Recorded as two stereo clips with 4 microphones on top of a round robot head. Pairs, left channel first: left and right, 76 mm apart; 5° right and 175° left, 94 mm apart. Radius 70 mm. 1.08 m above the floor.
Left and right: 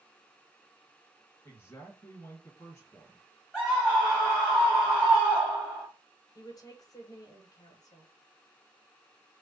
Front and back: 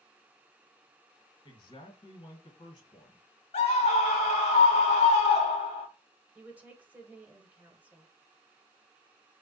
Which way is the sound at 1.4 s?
30° left.